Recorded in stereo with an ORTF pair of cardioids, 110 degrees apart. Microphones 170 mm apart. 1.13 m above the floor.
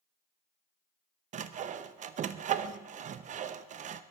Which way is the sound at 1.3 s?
45° right.